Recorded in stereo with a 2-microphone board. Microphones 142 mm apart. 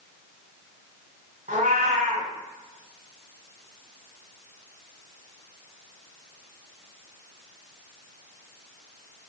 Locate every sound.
1.5 s a cat meowing: 75° right (ahead or behind), 1.7 m